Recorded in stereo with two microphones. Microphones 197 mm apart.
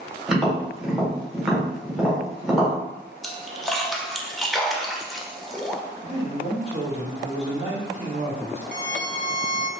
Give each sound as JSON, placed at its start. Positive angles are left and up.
{"t": 0.3, "sound": "tapping", "side_deg": 0, "distance_m": 1.6}
{"t": 3.2, "sound": "a splash", "side_deg": 0, "distance_m": 0.6}
{"t": 6.0, "sound": "a man speaking", "side_deg": -30, "distance_m": 1.5}
{"t": 8.7, "sound": "a violin", "side_deg": -60, "distance_m": 0.8}